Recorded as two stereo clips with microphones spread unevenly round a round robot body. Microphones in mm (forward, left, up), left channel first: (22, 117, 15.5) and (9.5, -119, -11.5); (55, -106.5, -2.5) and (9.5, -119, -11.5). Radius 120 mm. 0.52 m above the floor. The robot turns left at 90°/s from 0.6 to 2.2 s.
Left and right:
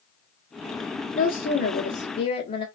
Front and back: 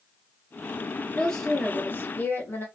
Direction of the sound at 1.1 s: 120° left.